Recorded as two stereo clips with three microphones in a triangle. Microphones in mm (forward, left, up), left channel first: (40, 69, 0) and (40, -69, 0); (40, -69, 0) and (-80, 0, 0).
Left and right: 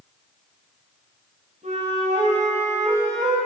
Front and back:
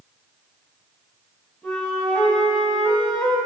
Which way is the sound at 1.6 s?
105° right.